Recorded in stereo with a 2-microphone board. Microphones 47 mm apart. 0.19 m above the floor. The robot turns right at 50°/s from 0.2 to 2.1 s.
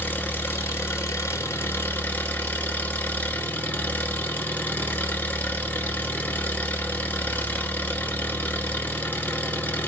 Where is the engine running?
45° left, 1.3 m; by 9.9 s 140° left, 1.3 m.